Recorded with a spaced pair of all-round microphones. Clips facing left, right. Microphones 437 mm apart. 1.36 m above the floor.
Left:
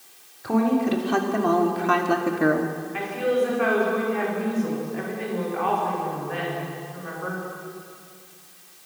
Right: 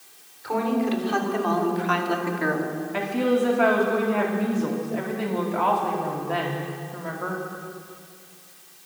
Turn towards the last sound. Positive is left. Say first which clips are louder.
# right 1 dB
turn(degrees=-85)